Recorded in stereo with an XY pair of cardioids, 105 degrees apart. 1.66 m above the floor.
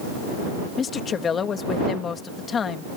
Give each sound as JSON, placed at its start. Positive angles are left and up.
{"t": 0.8, "sound": "a woman speaking", "azimuth_deg": 45}